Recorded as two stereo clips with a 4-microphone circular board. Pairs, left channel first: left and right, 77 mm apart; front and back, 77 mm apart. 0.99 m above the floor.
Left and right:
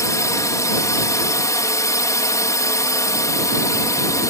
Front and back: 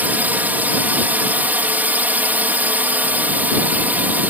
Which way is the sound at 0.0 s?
120° left.